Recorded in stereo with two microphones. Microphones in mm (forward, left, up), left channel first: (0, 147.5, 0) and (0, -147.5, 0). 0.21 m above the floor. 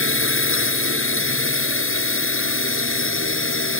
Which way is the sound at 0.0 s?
40° left (ahead or behind).